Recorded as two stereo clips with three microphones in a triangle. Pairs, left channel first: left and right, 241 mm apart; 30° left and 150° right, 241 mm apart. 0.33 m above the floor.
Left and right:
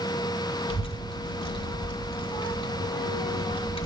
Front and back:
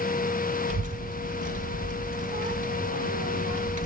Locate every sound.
0.7 s a child speaking: 160° left, 1.5 m